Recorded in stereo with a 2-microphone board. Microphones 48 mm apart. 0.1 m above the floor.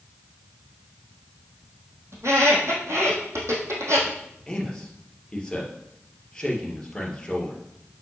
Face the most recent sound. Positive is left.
turn(degrees=15)  # may be behind; listen again after turning